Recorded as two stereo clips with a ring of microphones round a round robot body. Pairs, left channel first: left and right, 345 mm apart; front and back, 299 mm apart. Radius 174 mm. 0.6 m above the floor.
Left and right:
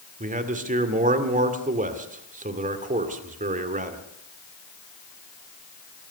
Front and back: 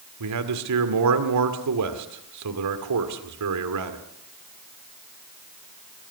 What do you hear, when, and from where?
0.2 s a man speaking: 155° right, 2 m